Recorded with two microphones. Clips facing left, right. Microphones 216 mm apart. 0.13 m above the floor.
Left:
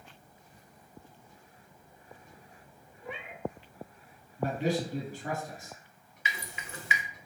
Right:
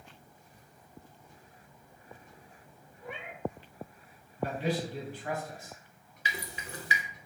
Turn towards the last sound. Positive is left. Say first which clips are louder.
# right 2 dB
turn(degrees=-40)  # may be behind; listen again after turning